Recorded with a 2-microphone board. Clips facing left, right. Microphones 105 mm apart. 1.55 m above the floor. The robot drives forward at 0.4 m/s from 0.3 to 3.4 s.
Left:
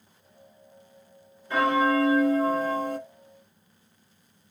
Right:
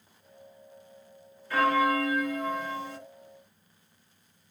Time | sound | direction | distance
1.5 | a bell | 25° left (ahead or behind) | 0.9 m